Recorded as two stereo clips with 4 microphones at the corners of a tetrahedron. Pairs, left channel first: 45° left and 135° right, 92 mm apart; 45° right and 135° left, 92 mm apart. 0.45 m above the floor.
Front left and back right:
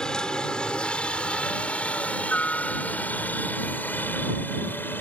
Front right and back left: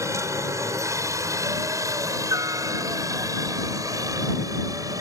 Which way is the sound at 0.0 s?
120° left.